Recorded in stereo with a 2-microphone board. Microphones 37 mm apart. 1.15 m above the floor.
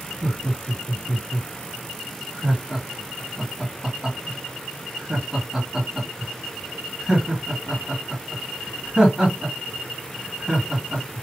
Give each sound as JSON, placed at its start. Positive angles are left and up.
{"t": 0.2, "sound": "laughter", "side_deg": -25, "distance_m": 1.9}